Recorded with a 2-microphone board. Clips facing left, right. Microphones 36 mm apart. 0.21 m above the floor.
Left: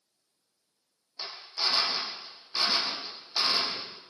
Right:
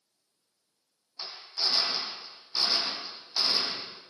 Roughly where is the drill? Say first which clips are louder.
Left 1 dB; left.